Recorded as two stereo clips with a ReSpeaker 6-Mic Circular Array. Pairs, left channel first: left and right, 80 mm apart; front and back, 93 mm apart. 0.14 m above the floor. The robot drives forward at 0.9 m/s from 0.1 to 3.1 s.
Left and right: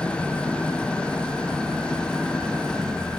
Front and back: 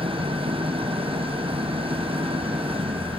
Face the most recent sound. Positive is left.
turn(degrees=170)